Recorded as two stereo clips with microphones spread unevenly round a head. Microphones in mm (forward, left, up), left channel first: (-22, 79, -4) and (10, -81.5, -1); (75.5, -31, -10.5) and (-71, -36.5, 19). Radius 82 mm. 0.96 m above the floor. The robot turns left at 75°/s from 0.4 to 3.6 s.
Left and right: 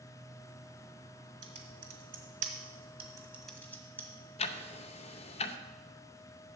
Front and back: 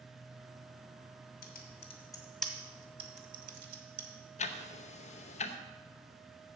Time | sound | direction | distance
1.4 | typing on a keyboard | 15° right | 1.6 m
4.4 | ticking | 45° left | 0.6 m